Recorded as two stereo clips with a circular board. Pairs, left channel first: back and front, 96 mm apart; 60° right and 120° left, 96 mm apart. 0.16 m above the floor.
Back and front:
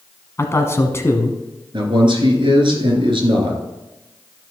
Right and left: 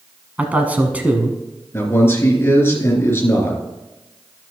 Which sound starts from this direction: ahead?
A man speaking, at 1.7 s.